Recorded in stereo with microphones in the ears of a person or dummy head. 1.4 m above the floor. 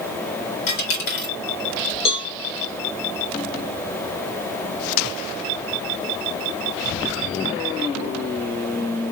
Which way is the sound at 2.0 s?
25° left (ahead or behind).